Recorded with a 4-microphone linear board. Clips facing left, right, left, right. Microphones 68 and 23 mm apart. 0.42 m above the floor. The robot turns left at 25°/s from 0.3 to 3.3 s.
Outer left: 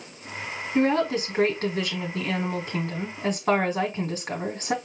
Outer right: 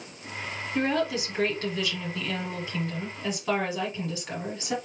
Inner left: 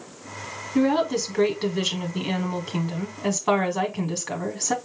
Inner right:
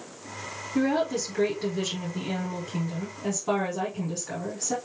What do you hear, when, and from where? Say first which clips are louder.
0.8 s a woman speaking: outer left 4 dB, inner left 4 dB; 140° left, 1.7 m; by 4.8 s 75° left, 1.7 m